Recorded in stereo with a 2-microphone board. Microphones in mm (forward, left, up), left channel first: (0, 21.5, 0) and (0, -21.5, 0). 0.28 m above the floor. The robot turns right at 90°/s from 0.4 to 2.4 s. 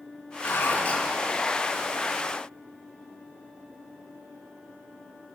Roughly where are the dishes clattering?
Left.